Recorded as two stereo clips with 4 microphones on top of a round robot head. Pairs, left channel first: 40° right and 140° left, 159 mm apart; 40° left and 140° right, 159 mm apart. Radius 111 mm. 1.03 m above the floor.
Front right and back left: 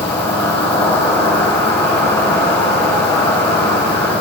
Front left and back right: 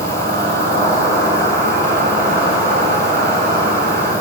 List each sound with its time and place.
0.0 s an insect: 115° right, 8.5 m